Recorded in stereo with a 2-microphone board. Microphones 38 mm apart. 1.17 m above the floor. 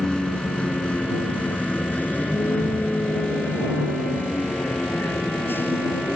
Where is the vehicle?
20° left (ahead or behind); by 6.2 s 75° left (ahead or behind).